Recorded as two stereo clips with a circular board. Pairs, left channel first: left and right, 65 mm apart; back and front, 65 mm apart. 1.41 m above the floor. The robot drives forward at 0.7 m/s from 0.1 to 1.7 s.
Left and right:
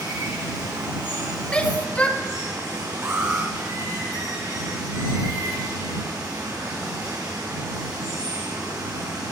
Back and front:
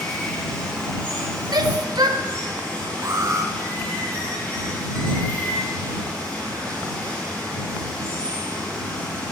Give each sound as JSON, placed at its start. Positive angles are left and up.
{"t": 0.0, "sound": "running water", "azimuth_deg": -100, "distance_m": 6.0}
{"t": 1.5, "sound": "a shout", "azimuth_deg": 15, "distance_m": 1.3}
{"t": 3.0, "sound": "an alarm", "azimuth_deg": -35, "distance_m": 1.1}